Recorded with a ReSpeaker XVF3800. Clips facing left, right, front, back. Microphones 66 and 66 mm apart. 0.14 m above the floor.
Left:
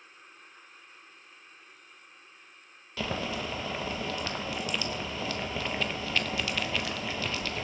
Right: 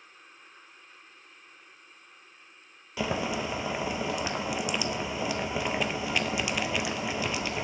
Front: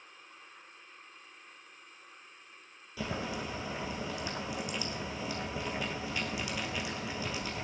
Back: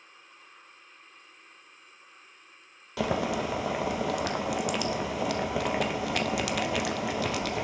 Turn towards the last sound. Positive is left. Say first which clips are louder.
# right 3 dB, back 9 dB
turn(degrees=-165)